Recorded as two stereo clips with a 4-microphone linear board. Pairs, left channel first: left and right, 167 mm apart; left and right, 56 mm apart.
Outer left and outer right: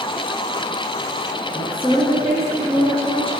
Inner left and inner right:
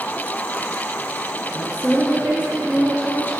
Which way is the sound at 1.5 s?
35° left (ahead or behind).